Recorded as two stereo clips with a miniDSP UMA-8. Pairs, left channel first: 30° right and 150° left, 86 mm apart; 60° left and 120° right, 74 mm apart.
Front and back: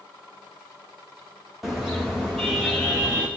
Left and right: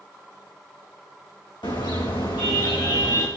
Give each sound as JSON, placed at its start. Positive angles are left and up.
{"t": 1.6, "sound": "a car horn", "azimuth_deg": 60, "distance_m": 5.0}